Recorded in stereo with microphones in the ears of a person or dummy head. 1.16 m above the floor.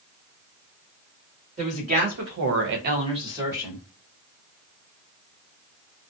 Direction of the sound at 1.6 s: 45° right (ahead or behind).